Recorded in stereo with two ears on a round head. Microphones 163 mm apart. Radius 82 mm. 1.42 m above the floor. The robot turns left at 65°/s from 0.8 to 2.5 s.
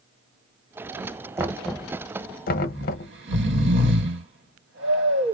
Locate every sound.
1.4 s knocking: 15° right (ahead or behind), 0.7 m; by 3.1 s 50° left (ahead or behind), 0.7 m
2.7 s snoring: 65° right (ahead or behind), 2 m